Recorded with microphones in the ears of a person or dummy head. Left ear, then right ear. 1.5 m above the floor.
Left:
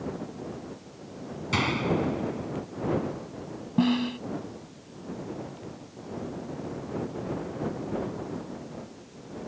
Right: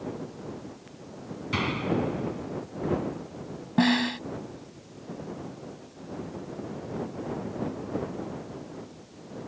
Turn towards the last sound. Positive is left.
turn(degrees=-35)  # may be behind; listen again after turning